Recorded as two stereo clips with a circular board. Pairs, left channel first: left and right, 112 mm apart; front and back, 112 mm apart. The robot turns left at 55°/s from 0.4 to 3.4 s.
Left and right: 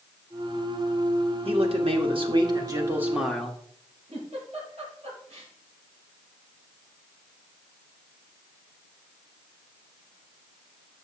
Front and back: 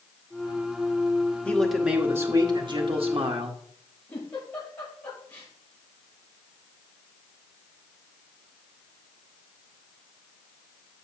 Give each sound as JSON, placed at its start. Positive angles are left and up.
{"t": 1.4, "sound": "a man speaking", "azimuth_deg": -75, "distance_m": 1.4}
{"t": 4.1, "sound": "a giggle", "azimuth_deg": -70, "distance_m": 6.0}